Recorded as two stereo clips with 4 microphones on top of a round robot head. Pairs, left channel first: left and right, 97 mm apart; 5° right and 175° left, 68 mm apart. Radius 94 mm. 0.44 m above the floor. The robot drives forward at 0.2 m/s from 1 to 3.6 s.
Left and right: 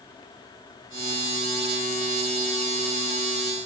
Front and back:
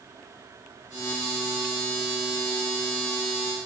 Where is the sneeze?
I don't hear a sneeze.